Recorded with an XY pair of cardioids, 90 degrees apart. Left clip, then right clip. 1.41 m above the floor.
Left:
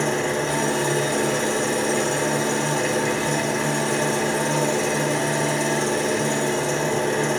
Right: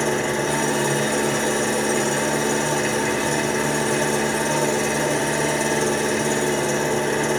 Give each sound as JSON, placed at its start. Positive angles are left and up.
{"t": 0.0, "sound": "an engine running", "azimuth_deg": -20, "distance_m": 2.5}